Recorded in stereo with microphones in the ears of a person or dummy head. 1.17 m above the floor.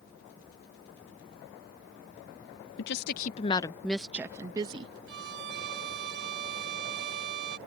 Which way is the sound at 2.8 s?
70° left (ahead or behind).